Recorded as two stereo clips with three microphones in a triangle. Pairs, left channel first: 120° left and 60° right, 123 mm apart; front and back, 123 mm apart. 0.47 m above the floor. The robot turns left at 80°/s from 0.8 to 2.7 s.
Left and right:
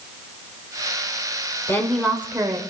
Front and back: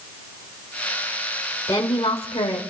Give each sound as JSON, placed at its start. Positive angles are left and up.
{"t": 1.7, "sound": "a woman speaking", "azimuth_deg": 60, "distance_m": 1.8}